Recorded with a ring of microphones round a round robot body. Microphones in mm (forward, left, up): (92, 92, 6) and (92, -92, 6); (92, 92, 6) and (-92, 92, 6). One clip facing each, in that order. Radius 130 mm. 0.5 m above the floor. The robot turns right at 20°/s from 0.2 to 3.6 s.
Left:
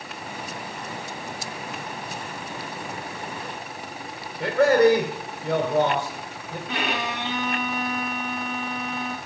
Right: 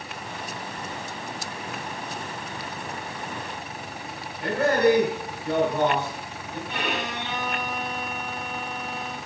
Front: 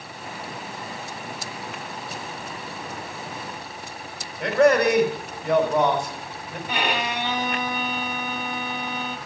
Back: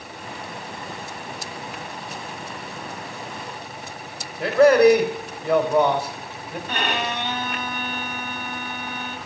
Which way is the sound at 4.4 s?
95° left.